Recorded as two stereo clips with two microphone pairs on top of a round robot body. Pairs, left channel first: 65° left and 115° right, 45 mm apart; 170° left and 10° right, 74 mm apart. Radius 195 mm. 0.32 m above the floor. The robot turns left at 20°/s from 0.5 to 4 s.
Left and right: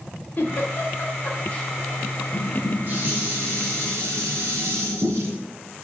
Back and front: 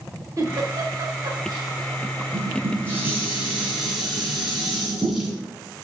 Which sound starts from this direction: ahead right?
Dishes clattering, at 2.3 s.